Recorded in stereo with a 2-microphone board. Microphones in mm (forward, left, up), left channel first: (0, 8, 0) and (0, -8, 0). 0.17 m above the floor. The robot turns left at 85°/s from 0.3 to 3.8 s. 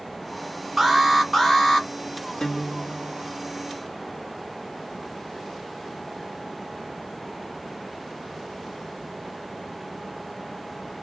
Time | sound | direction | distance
0.8 | an alarm | 155° right | 1.4 m
2.4 | a guitar | 85° left | 1.3 m